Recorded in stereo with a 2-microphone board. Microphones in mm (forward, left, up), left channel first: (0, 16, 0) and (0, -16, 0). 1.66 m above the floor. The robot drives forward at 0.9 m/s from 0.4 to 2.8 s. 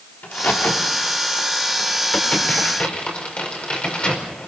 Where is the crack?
55° left (ahead or behind), 3.5 m; by 4.5 s 35° left (ahead or behind), 5 m.